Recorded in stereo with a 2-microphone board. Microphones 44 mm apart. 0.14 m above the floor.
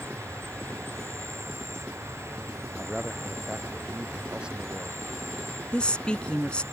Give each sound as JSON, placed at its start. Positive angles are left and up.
{"t": 0.0, "sound": "an insect", "side_deg": -80}
{"t": 2.8, "sound": "a man speaking", "side_deg": -25}
{"t": 5.7, "sound": "a woman speaking", "side_deg": 20}